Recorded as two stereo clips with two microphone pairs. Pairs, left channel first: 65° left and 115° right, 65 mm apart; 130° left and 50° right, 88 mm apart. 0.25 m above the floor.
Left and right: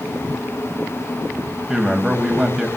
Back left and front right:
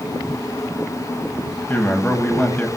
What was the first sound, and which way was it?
A man speaking, 175° left.